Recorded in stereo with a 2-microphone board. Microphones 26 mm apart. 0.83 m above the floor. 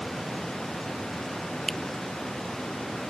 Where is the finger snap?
15° left (ahead or behind).